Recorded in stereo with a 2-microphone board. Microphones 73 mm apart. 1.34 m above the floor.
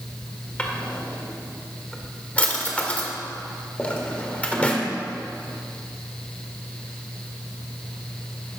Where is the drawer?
20° left (ahead or behind), 1.5 m.